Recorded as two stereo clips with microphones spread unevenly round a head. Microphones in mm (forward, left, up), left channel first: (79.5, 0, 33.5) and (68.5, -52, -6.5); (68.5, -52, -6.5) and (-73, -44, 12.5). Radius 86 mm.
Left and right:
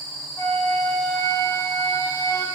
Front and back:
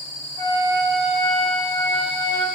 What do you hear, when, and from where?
0.4 s a flute: 30° left, 1.4 m